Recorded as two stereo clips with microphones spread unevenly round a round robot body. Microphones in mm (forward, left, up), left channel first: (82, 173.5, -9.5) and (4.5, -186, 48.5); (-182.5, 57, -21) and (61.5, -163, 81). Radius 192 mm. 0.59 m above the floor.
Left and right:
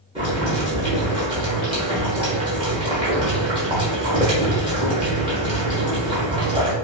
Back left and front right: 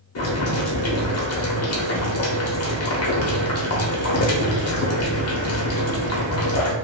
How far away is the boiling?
About 1.2 m.